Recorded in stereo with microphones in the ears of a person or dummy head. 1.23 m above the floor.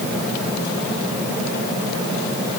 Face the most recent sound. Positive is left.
No sound to turn to.